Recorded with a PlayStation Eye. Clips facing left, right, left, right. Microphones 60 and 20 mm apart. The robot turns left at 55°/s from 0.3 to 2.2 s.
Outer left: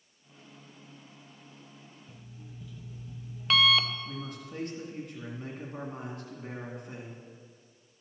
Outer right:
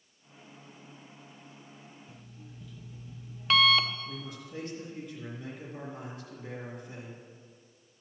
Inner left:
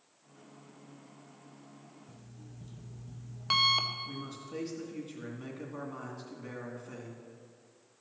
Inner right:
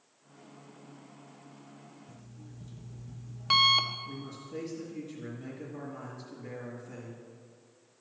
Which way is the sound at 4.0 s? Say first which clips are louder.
Outer left 2 dB, even; 55° left (ahead or behind).